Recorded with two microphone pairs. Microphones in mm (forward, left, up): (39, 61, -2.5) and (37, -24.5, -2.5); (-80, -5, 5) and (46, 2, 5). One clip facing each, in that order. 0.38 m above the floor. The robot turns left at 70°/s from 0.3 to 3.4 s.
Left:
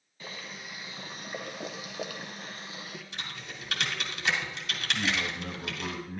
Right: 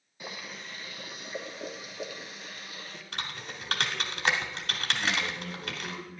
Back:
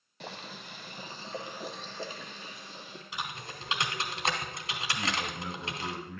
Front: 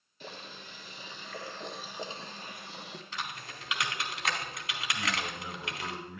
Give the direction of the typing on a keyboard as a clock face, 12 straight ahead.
3 o'clock.